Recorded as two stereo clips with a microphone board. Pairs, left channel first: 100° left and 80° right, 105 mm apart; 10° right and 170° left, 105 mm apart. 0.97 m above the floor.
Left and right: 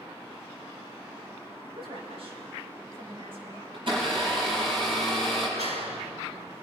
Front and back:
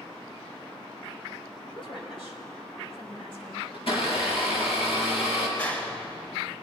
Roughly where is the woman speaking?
Ahead right.